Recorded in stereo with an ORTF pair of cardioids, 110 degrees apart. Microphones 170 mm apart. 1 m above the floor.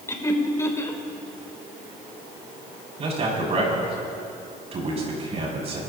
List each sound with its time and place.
0.1 s laughter: 20° left, 3 m
3.0 s a man speaking: 40° right, 6.5 m